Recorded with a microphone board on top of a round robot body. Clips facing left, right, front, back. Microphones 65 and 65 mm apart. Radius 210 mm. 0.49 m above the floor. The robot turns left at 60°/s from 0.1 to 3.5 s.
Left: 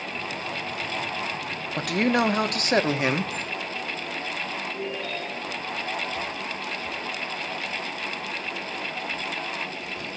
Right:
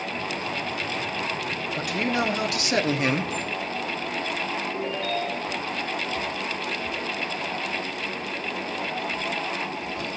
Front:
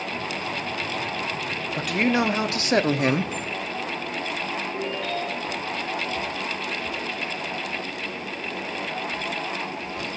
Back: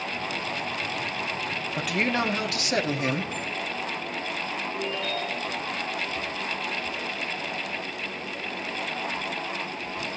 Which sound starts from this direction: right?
A ringtone, at 4.7 s.